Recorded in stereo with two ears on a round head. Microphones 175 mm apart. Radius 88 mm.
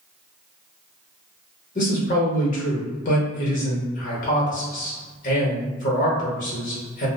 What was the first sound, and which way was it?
A man speaking, 40° left (ahead or behind).